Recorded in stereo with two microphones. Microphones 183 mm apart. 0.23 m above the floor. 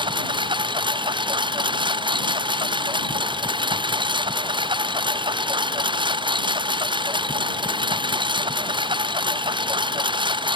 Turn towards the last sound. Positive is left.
turn(degrees=-25)  # may be behind; listen again after turning